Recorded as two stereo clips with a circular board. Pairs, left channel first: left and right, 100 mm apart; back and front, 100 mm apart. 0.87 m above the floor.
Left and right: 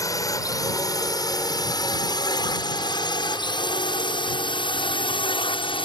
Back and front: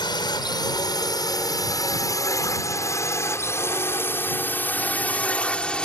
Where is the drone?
140° left; by 5.9 s 100° left.